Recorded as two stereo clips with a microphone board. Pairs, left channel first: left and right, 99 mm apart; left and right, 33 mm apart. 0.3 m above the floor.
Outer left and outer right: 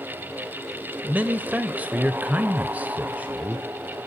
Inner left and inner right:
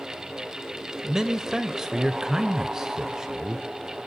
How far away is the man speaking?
About 0.9 m.